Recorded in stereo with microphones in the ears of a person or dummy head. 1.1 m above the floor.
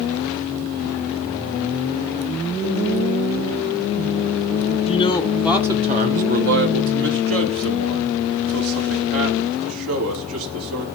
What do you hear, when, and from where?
4.9 s a man speaking: 25° left (ahead or behind), 0.7 m; by 10.8 s 75° right (ahead or behind), 3 m